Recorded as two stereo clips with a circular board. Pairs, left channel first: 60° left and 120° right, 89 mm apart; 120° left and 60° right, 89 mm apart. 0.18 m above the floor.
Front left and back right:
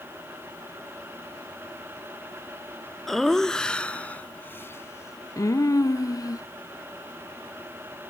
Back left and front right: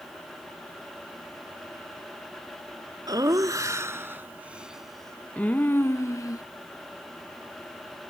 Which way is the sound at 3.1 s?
25° right.